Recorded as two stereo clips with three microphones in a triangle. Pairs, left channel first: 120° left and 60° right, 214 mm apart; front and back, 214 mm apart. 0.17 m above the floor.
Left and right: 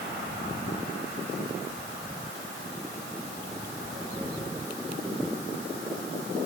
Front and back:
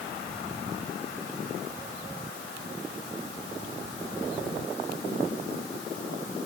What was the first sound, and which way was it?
Only background noise.